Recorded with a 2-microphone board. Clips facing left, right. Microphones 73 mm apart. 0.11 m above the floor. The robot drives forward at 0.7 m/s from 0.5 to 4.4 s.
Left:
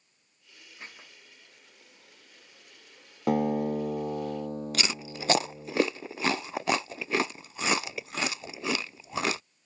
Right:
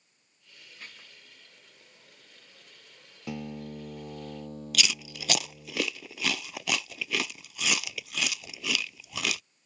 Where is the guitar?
65° left (ahead or behind); by 5.7 s 35° left (ahead or behind).